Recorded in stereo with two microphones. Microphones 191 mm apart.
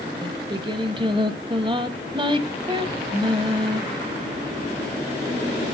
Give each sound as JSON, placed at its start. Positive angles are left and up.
{"t": 0.2, "sound": "singing", "side_deg": -25, "distance_m": 1.1}